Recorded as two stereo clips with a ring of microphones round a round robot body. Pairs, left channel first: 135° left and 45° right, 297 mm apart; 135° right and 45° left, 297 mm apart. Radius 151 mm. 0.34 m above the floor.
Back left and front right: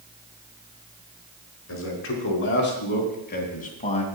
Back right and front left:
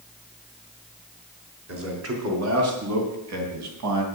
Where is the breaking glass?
I don't hear breaking glass.